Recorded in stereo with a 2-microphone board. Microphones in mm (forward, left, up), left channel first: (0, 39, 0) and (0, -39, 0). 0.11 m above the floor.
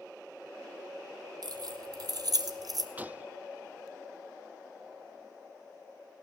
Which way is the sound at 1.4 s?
60° right (ahead or behind).